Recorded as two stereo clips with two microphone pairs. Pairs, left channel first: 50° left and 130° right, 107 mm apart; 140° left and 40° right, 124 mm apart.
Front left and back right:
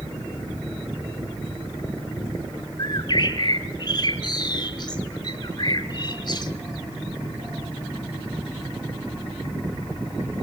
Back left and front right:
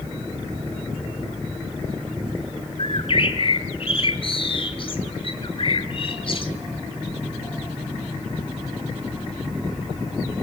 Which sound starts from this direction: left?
A bird, at 2.8 s.